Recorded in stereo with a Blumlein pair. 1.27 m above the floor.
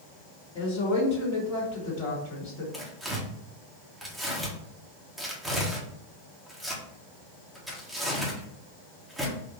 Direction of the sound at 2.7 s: Straight ahead.